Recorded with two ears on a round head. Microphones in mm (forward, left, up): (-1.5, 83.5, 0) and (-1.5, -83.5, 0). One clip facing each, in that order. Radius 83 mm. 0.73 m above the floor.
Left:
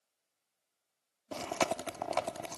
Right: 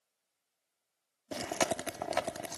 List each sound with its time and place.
1.3 s chewing: 15° right (ahead or behind)